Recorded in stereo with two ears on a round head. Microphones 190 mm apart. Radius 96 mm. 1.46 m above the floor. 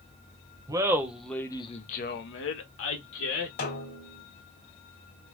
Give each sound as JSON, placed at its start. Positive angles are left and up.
{"t": 0.7, "sound": "laughter", "side_deg": -15, "distance_m": 0.8}
{"t": 3.6, "sound": "a snare drum", "side_deg": 45, "distance_m": 1.7}